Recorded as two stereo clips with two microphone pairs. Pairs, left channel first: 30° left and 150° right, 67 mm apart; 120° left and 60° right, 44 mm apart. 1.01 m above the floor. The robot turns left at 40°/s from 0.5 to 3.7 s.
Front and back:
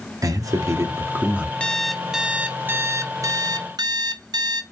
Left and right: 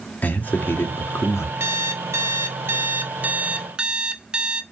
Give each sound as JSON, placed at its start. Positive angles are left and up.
{"t": 0.2, "sound": "a man speaking", "azimuth_deg": 175, "distance_m": 1.8}
{"t": 1.6, "sound": "an alarm clock", "azimuth_deg": -45, "distance_m": 0.7}